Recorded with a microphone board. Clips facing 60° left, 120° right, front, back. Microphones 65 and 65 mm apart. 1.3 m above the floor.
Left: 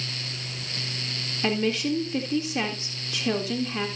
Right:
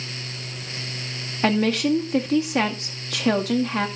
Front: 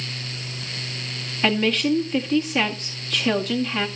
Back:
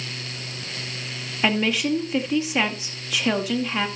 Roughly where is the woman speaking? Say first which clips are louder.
Right 5 dB, front 1 dB; right.